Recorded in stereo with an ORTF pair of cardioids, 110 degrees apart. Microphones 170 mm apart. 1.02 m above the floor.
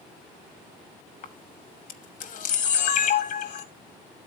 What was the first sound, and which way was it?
A camera shutter, 55° left.